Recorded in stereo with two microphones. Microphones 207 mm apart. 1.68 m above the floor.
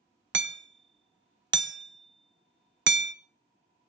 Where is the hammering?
65° right (ahead or behind), 0.6 m.